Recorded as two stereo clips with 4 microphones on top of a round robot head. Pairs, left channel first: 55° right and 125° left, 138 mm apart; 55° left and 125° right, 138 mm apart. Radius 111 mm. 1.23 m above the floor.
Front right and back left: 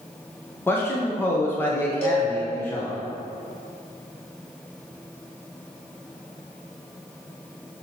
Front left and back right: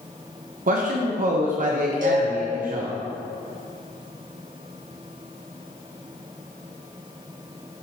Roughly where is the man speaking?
Behind right.